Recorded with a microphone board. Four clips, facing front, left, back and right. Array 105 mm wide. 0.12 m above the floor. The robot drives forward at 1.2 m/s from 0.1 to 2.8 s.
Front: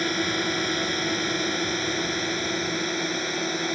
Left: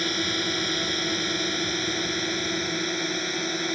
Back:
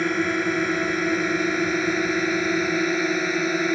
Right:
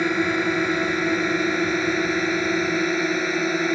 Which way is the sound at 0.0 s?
120° right.